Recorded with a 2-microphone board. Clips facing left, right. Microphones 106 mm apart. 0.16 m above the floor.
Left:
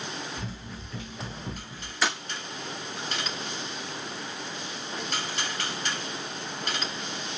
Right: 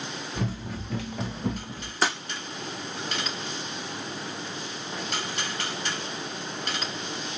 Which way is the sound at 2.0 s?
40° right (ahead or behind).